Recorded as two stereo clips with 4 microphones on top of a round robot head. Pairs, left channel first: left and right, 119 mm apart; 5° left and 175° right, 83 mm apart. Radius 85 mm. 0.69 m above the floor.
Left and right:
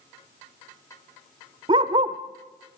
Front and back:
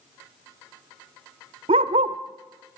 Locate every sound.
1.7 s a dog barking: 150° right, 1.0 m